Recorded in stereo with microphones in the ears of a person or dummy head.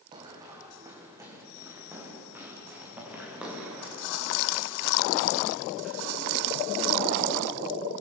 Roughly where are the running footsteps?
Right.